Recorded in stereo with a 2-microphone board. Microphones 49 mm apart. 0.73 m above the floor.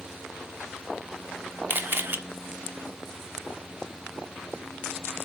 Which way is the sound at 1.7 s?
40° right (ahead or behind).